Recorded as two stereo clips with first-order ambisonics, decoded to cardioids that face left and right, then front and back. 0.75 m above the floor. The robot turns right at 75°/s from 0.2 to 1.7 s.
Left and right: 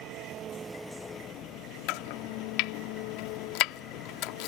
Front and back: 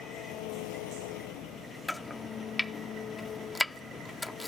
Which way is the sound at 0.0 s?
50° right.